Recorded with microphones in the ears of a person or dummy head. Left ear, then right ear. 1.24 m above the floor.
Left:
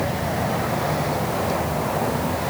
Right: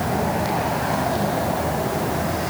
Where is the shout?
No shout in this recording.